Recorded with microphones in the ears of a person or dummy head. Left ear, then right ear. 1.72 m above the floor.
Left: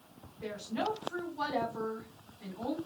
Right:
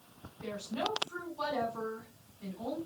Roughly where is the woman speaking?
Left.